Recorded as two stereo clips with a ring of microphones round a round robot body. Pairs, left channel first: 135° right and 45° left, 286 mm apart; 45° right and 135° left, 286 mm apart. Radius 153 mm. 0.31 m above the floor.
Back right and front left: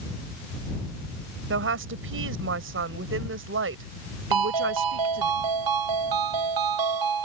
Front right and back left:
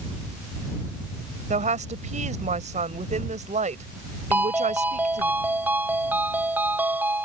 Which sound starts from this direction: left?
A woman speaking, at 1.5 s.